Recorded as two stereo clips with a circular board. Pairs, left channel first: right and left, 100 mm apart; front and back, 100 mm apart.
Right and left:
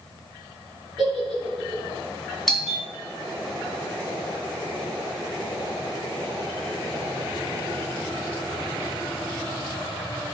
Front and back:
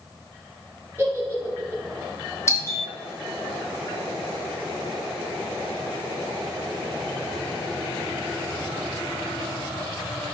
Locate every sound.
1.0 s a giggle: 65° left, 3 m
2.5 s a doorbell: straight ahead, 2.5 m